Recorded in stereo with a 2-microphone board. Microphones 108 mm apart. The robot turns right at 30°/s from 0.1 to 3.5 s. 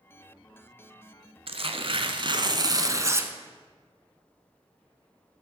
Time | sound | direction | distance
1.5 | tearing paper | 80° right | 0.8 m